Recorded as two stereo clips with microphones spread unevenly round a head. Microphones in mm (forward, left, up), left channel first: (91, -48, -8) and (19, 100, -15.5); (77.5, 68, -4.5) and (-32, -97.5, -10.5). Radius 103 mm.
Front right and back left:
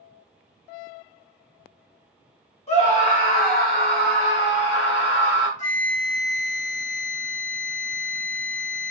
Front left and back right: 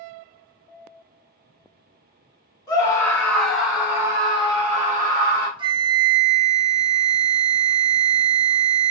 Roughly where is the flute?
Ahead right.